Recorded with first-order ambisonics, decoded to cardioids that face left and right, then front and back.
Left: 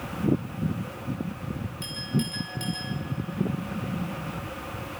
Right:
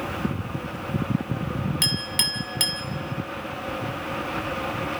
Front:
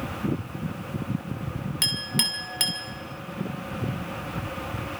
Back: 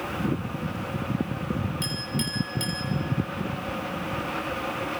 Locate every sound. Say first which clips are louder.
1.8 s a clink: right 9 dB, front 10 dB; 55° right, 2 m